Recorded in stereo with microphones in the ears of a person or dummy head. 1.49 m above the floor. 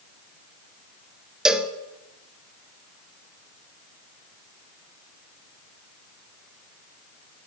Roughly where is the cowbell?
Centre.